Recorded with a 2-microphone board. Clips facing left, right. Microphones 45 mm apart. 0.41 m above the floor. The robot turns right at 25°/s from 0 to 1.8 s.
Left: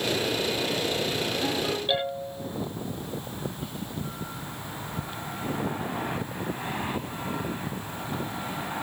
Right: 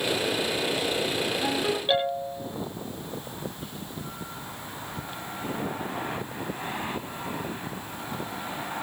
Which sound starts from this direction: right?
A ringtone, at 1.4 s.